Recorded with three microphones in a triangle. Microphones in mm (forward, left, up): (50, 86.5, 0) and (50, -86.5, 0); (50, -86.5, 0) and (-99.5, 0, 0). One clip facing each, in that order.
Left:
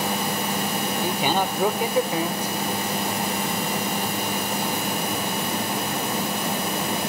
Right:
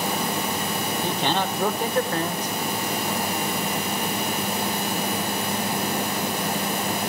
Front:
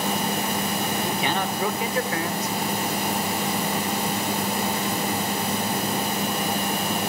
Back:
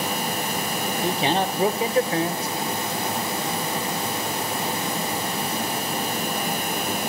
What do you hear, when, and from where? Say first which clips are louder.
1.0 s a man speaking: left 1 dB, back 3 dB; 160° left, 1.0 m